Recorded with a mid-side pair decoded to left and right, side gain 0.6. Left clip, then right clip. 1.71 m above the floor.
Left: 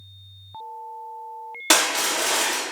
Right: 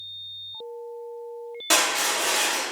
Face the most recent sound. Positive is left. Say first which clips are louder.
# left 2 dB
turn(degrees=45)